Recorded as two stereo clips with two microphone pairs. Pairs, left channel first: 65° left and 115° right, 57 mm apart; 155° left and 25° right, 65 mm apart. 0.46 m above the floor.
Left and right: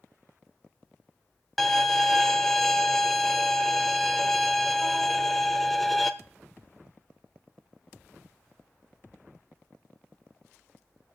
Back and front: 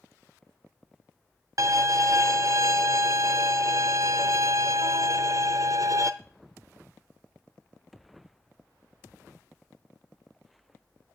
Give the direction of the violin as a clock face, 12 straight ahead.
1 o'clock.